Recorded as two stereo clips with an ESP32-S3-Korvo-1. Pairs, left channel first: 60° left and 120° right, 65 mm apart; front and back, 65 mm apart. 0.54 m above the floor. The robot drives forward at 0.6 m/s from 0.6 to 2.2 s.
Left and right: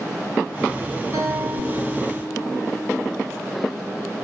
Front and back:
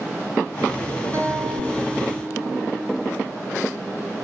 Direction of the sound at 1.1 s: 145° right.